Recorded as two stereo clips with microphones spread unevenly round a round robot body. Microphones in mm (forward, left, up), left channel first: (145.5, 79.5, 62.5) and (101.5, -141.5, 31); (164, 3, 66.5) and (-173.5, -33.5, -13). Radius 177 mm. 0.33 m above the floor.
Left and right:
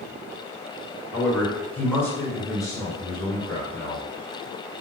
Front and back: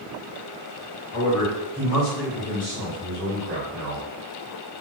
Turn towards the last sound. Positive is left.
turn(degrees=150)